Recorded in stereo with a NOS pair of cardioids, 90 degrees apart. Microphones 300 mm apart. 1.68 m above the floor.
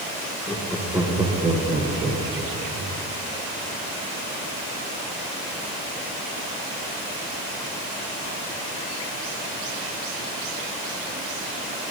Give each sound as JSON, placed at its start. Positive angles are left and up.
{"t": 0.5, "sound": "laughter", "azimuth_deg": 10, "distance_m": 1.4}